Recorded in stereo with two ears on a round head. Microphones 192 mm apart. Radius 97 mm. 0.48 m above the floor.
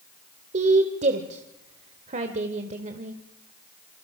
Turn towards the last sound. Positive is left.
turn(degrees=-35)  # may be behind; listen again after turning